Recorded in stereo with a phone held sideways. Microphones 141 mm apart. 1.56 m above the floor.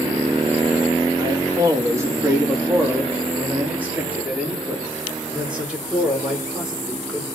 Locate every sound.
1.2 s a man speaking: 25° right (ahead or behind), 2.5 m; by 7.2 s 5° right (ahead or behind), 6 m